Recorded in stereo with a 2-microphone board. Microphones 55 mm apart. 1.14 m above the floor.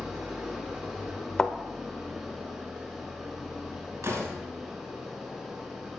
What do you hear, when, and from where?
0.0 s an engine running: 10° right (ahead or behind), 6 m
1.4 s a thud: 15° left (ahead or behind), 0.9 m
4.0 s a door slam: 65° right (ahead or behind), 6 m